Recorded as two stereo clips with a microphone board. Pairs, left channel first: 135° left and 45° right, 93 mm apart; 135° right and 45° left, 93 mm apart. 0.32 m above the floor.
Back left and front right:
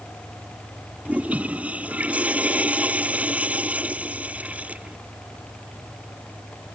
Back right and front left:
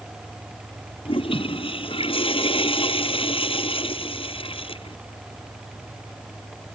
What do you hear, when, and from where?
1.1 s a toilet flushing: 120° right